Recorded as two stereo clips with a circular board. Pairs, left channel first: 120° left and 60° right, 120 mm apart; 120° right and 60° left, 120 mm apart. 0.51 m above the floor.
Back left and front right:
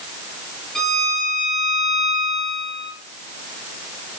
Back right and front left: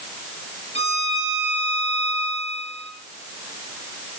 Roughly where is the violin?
Behind right.